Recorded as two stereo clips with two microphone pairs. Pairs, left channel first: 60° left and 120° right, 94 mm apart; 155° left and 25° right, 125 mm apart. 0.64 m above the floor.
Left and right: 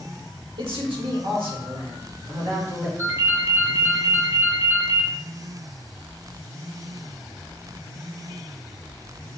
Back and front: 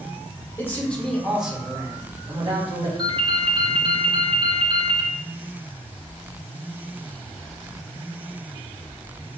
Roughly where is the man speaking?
Behind right.